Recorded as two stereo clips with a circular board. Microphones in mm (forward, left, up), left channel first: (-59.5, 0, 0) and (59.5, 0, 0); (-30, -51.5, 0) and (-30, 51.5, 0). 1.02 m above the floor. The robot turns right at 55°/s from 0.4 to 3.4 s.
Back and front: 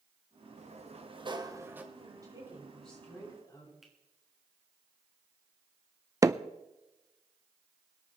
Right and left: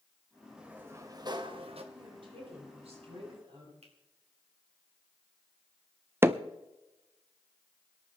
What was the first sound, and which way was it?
A sliding door, 10° left.